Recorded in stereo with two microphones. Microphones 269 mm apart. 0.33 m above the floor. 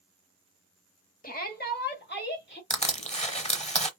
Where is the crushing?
25° left (ahead or behind), 0.8 m.